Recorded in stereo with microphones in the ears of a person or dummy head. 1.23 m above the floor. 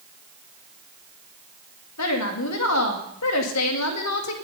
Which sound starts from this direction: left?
A woman speaking, at 2.0 s.